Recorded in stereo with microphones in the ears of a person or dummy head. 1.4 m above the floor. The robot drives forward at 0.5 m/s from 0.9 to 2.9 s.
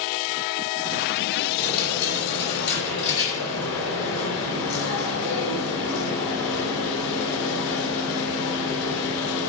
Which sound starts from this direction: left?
A dropped coin, at 1.6 s.